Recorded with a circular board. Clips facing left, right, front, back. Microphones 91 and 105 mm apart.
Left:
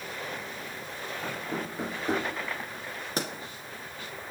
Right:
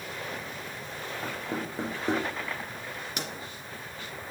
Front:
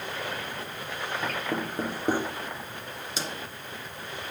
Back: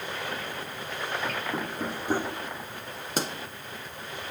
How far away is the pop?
About 1.4 m.